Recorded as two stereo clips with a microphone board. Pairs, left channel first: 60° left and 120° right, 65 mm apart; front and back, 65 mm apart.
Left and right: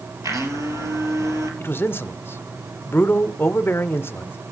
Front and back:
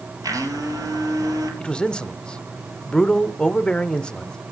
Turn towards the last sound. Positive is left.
turn(degrees=65)